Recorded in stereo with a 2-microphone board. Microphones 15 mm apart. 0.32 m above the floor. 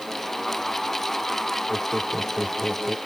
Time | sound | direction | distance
1.7 | laughter | 75° right (ahead or behind) | ?